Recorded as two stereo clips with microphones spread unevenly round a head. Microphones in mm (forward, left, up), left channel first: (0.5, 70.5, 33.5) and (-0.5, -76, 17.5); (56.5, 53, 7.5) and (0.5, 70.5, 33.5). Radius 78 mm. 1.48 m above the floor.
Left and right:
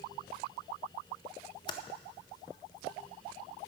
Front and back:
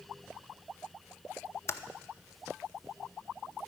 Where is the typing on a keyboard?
35° left, 0.6 m.